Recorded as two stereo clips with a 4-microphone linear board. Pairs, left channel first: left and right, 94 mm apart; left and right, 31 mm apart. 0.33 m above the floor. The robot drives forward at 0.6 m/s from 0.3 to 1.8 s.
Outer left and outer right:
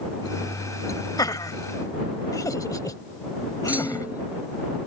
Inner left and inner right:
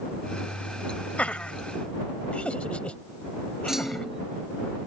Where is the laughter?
45° left (ahead or behind); by 4.1 s 40° left (ahead or behind).